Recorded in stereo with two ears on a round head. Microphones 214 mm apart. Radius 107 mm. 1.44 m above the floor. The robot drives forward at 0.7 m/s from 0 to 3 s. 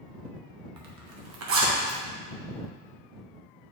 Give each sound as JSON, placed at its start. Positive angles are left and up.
{"t": 0.8, "sound": "a zipper", "side_deg": -80, "distance_m": 1.1}